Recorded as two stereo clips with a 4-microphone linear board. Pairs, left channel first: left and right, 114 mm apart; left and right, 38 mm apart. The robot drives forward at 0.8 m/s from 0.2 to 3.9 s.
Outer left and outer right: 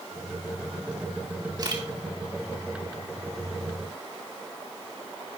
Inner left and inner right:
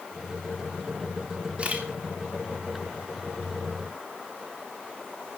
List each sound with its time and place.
1.6 s a camera shutter: 40° right (ahead or behind), 2.5 m